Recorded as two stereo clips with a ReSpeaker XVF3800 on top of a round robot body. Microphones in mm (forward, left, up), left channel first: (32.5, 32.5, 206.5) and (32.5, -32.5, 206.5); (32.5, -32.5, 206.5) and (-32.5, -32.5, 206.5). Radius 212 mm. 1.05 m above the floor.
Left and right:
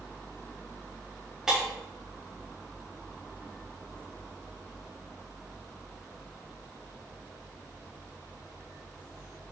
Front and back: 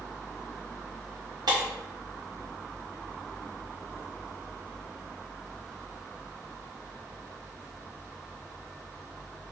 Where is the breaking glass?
170° right, 1.5 m.